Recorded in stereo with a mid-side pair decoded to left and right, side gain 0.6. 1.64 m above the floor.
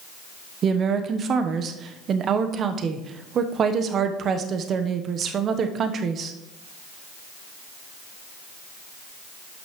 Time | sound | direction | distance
0.6 | a woman speaking | 45° right | 1.0 m